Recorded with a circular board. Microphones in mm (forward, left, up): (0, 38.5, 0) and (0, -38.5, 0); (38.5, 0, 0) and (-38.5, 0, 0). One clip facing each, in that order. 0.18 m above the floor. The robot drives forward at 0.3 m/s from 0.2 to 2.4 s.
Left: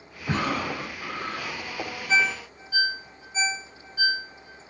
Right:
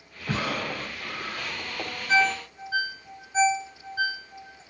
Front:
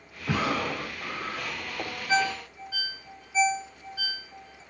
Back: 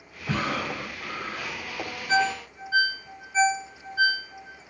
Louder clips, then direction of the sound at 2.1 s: Right 2 dB, back 2 dB; 120° right.